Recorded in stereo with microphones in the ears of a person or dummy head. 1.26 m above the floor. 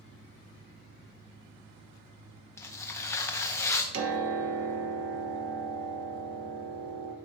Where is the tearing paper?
15° left (ahead or behind), 0.6 m.